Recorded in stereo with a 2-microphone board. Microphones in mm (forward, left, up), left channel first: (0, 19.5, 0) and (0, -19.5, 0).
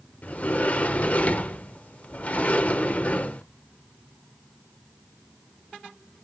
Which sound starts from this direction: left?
A sliding door, at 0.2 s.